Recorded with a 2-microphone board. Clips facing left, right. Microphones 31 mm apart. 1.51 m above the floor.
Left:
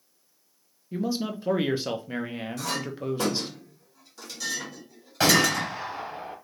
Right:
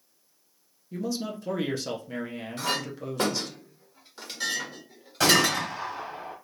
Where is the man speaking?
25° left (ahead or behind), 0.7 m.